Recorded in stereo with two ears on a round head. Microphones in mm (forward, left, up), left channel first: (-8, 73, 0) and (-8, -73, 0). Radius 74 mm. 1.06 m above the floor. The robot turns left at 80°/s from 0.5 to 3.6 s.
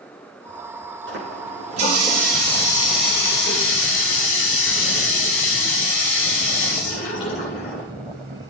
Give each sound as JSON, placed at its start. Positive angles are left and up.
{"t": 1.1, "sound": "a running tap", "azimuth_deg": -80, "distance_m": 9.5}